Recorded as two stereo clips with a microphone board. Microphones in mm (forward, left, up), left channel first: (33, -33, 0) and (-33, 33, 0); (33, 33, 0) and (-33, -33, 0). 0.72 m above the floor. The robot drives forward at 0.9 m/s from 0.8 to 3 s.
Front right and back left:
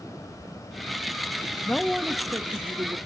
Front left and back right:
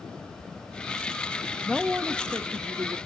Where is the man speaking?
20° right, 0.5 m; by 3.0 s 175° right, 1.1 m.